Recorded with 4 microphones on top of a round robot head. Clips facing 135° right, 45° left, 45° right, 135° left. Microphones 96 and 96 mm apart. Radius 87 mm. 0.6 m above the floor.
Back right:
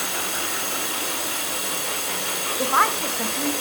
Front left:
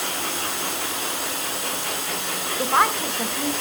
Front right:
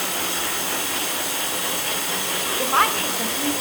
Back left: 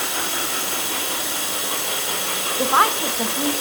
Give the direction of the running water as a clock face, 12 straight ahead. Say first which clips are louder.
Even, even; 5 o'clock.